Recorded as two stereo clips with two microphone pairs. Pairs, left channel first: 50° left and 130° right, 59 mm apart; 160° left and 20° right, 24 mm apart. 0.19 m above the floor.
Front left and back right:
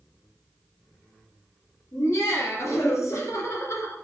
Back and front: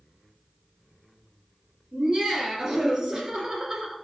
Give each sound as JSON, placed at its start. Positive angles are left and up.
{"t": 1.9, "sound": "laughter", "azimuth_deg": 30, "distance_m": 3.5}